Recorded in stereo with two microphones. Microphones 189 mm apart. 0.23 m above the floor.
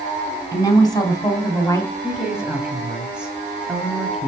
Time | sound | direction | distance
0.5 | a woman speaking | 20° left (ahead or behind) | 2.0 m
2.0 | a woman speaking | 5° right (ahead or behind) | 1.0 m